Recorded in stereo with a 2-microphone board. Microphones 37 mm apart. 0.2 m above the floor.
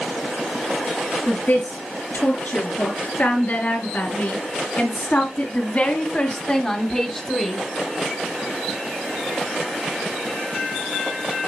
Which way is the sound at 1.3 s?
60° left (ahead or behind).